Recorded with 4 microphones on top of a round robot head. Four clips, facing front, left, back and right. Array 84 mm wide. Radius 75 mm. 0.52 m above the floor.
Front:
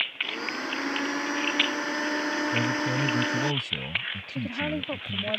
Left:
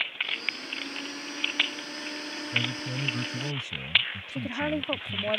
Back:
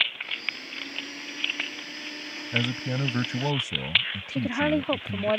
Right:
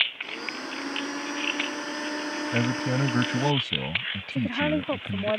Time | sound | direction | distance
0.2 | a blender | 20° right | ?
2.5 | a man speaking | 105° right | ?
4.3 | a woman speaking | 145° right | ?